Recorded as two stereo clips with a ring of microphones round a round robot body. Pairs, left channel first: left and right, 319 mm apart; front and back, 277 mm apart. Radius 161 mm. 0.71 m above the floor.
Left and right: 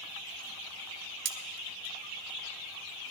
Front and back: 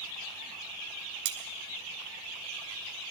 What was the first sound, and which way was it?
Cutlery clinking, 145° right.